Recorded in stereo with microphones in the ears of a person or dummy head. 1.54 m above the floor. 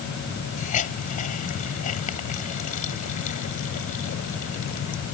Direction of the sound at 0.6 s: 40° left (ahead or behind).